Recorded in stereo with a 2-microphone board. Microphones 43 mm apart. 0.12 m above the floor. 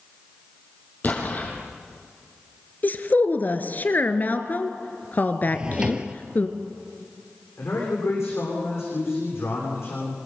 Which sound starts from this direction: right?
A drawer, at 5.5 s.